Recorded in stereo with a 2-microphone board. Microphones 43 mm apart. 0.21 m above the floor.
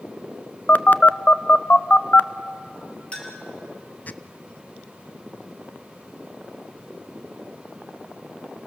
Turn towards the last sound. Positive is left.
turn(degrees=25)  # may be behind; listen again after turning